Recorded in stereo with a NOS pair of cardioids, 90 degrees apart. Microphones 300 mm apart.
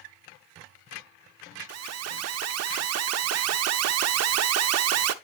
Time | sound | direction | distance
1.7 | an alarm | 60° right | 0.8 m